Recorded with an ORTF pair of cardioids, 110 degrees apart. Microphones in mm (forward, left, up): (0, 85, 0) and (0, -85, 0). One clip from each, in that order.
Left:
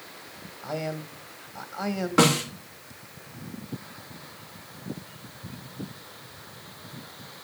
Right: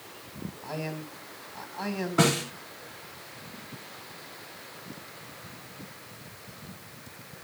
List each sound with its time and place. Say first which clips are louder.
0.6 s a man speaking: left 4 dB; 25° left, 2 m
2.2 s a snare drum: left 4 dB; 65° left, 3 m